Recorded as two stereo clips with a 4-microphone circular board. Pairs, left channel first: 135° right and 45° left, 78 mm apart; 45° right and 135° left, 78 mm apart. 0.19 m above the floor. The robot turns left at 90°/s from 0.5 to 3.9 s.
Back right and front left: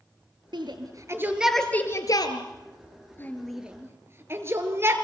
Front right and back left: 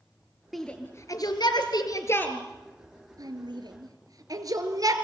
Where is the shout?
45° left, 3.5 m; by 5.0 s 100° left, 3.5 m.